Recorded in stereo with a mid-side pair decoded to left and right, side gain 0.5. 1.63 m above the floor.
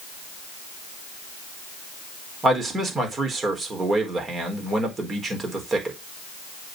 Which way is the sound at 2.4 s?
30° right.